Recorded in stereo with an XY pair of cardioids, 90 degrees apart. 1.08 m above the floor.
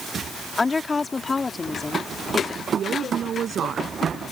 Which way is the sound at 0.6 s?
30° left.